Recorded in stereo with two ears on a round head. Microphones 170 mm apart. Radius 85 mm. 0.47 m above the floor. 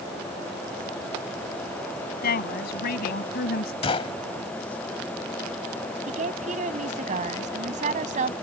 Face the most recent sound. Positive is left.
turn(degrees=-40)  # may be behind; listen again after turning